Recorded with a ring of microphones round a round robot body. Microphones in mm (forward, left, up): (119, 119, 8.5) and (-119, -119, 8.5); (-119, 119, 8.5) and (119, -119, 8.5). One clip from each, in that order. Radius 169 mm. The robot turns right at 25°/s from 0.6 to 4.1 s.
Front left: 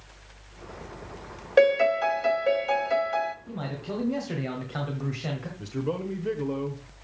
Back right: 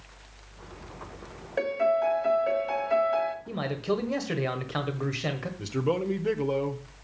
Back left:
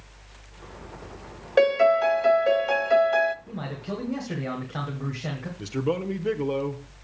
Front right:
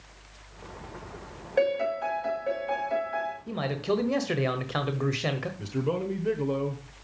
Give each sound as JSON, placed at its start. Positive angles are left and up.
{"t": 1.6, "sound": "a piano", "azimuth_deg": 80, "distance_m": 1.2}
{"t": 3.5, "sound": "a man speaking", "azimuth_deg": -90, "distance_m": 1.4}
{"t": 5.6, "sound": "a man speaking", "azimuth_deg": -175, "distance_m": 1.0}